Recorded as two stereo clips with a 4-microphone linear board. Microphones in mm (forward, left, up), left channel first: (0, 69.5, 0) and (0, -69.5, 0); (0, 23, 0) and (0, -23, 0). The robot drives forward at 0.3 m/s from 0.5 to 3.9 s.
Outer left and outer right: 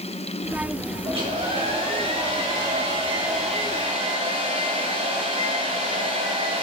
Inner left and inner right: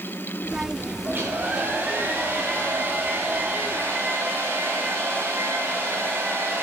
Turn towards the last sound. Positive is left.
turn(degrees=-50)  # may be behind; listen again after turning